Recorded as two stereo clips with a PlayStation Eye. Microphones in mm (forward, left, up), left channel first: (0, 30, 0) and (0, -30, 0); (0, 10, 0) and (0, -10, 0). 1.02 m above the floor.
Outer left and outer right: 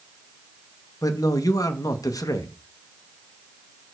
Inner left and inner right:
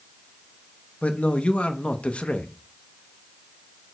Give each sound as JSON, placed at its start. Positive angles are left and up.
{"t": 1.0, "sound": "a man speaking", "side_deg": 75, "distance_m": 1.0}